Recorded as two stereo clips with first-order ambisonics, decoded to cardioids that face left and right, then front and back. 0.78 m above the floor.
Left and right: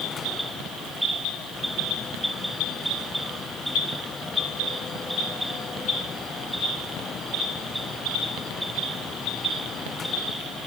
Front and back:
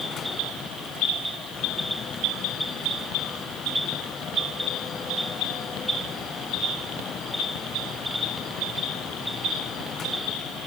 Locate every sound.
Only background noise.